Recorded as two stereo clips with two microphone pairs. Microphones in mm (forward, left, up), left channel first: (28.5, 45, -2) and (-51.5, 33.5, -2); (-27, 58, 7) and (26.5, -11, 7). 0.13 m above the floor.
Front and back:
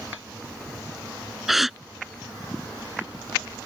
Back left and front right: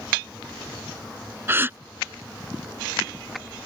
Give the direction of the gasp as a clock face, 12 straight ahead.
3 o'clock.